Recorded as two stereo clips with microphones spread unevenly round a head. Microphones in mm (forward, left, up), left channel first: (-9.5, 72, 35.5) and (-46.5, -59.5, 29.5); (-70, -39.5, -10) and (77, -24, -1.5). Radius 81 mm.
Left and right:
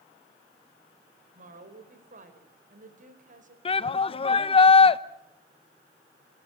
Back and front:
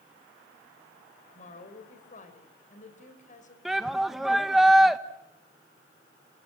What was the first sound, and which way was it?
A woman speaking, 135° right.